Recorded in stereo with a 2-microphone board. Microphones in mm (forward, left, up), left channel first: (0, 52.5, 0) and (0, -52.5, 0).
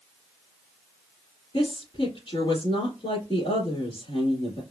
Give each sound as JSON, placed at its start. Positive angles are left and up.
{"t": 1.5, "sound": "a woman speaking", "side_deg": 60, "distance_m": 2.5}